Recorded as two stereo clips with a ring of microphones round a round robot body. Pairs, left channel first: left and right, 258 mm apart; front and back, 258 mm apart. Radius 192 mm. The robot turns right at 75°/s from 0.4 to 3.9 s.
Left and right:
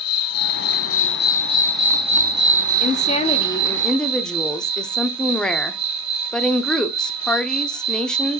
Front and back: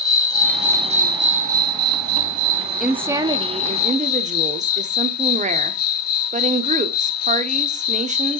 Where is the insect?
75° left, 1.1 m; by 8.4 s 20° right, 1.1 m.